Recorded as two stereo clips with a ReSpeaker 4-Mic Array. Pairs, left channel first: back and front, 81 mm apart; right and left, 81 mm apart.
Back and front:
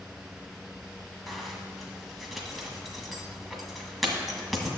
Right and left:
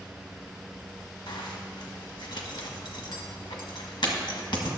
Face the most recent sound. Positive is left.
turn(degrees=-90)